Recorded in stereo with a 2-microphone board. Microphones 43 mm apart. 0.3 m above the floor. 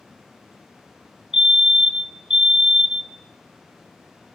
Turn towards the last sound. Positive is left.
turn(degrees=-15)  # may be behind; listen again after turning